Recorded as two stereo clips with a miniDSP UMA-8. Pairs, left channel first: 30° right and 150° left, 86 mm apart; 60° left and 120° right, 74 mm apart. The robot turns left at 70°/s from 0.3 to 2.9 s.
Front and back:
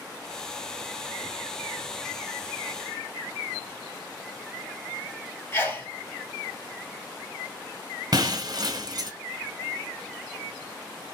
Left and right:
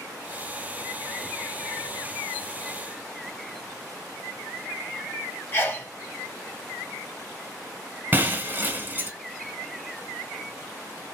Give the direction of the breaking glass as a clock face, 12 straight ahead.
6 o'clock.